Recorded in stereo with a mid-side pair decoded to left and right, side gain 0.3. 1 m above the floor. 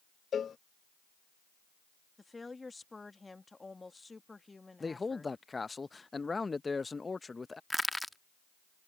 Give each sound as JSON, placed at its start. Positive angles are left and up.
{"t": 0.3, "sound": "a cowbell", "azimuth_deg": 65}
{"t": 2.2, "sound": "a woman speaking", "azimuth_deg": 30}
{"t": 4.8, "sound": "a man speaking", "azimuth_deg": 35}
{"t": 7.7, "sound": "crushing", "azimuth_deg": 5}